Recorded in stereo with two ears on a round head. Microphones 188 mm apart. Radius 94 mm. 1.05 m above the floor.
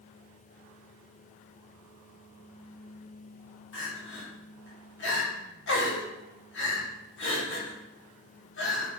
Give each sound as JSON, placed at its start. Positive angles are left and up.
{"t": 3.7, "sound": "crying", "side_deg": 60, "distance_m": 2.5}